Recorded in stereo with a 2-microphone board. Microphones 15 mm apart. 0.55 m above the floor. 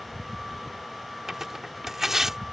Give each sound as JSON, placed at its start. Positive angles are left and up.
{"t": 1.3, "sound": "tearing paper", "side_deg": -30}